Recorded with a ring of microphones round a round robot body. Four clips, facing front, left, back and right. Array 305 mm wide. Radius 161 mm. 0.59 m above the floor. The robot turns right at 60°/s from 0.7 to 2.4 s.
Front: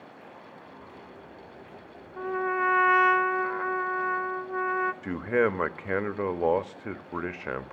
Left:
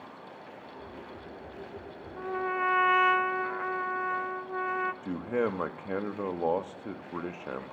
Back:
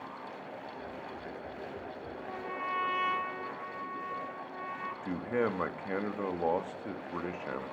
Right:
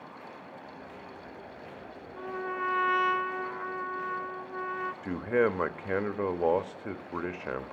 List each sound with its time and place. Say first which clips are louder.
2.2 s a trumpet: left 3 dB, front 13 dB; 15° left, 0.7 m; by 4.9 s 30° left, 0.7 m
5.0 s a man speaking: right 7 dB, front 4 dB; 20° right, 0.7 m